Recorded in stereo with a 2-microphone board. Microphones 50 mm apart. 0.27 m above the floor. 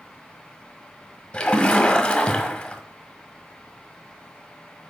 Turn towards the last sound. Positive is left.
turn(degrees=20)  # may be behind; listen again after turning